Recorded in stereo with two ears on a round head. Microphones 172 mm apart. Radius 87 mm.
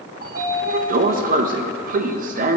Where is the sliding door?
45° right (ahead or behind), 0.6 m.